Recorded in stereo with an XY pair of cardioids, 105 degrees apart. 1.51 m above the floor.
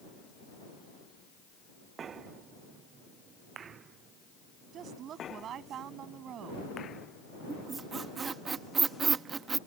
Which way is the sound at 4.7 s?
65° right.